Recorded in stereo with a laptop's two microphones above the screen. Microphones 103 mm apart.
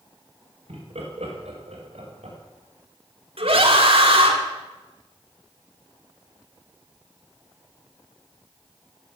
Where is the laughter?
80° right, 5 m; by 2.4 s 85° right, 6 m.